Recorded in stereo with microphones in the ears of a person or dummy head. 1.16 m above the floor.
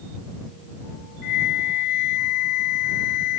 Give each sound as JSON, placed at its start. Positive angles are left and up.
{"t": 1.2, "sound": "a flute", "side_deg": 60}